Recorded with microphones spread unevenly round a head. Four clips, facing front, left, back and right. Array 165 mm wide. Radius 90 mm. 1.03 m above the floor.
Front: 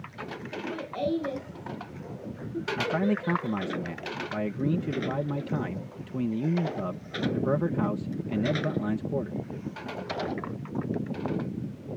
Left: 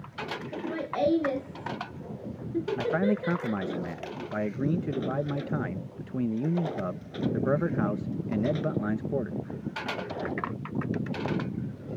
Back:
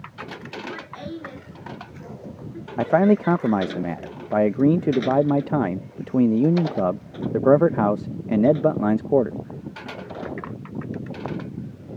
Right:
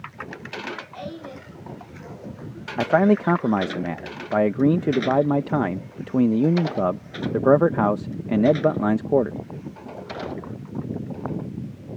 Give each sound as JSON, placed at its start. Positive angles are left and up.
{"t": 0.5, "sound": "laughter", "azimuth_deg": 80}
{"t": 2.8, "sound": "a man speaking", "azimuth_deg": -140}